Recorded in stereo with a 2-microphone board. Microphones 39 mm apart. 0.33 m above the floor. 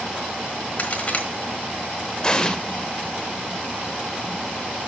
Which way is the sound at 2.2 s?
20° left (ahead or behind).